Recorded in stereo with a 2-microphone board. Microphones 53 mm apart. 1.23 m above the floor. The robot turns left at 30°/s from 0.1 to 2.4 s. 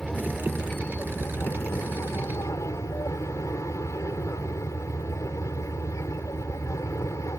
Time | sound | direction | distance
0.0 | an aircraft | 170° left | ?